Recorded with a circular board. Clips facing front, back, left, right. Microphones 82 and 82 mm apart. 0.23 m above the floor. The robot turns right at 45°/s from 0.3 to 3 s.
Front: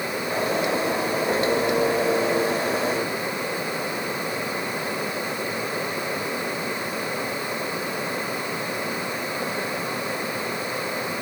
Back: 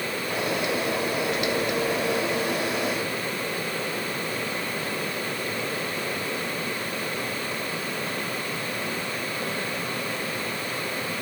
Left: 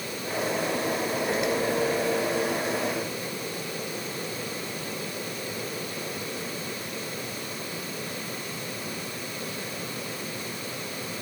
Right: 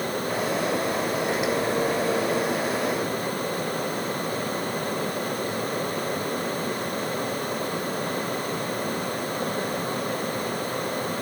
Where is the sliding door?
No sliding door in this recording.